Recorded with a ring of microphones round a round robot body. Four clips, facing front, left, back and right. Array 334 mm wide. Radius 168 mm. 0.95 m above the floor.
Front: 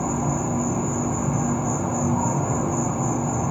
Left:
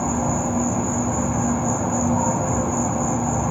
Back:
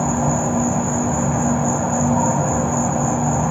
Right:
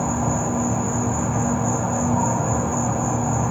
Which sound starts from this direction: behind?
An insect, at 0.0 s.